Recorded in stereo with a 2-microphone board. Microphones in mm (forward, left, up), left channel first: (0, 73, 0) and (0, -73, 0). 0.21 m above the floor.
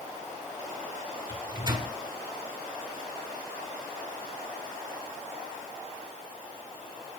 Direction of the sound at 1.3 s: 30° right (ahead or behind).